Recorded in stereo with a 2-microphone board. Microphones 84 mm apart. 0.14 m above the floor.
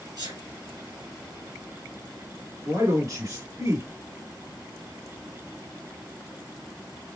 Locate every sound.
0.2 s a sneeze: 55° right (ahead or behind), 2 m
2.6 s a man speaking: 45° right (ahead or behind), 1.8 m